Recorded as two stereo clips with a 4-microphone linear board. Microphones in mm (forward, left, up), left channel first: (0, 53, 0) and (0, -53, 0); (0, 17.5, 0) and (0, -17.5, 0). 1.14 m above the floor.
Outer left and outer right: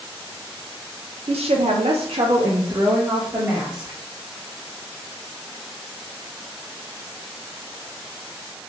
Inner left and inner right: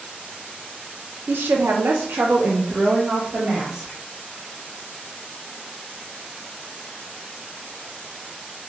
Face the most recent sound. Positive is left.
turn(degrees=-20)  # may be behind; listen again after turning